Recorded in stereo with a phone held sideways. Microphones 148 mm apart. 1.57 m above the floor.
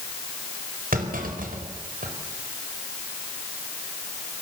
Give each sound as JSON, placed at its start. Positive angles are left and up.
{"t": 0.9, "sound": "a clunk", "side_deg": -70, "distance_m": 4.5}